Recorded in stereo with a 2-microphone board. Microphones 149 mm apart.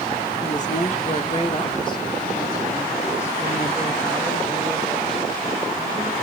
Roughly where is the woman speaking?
Left.